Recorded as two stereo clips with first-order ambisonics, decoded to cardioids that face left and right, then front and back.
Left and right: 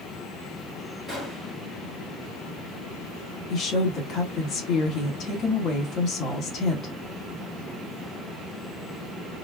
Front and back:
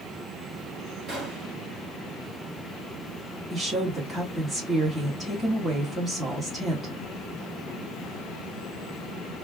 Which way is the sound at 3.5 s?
115° left.